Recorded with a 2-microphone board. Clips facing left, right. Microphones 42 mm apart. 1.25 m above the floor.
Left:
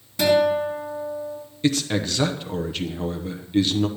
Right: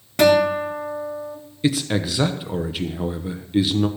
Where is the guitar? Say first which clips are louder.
Right 3 dB; 55° right (ahead or behind), 3 m.